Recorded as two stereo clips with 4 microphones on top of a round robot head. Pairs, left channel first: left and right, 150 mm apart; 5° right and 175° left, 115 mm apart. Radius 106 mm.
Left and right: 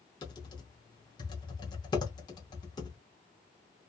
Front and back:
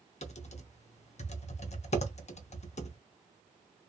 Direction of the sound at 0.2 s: 25° left.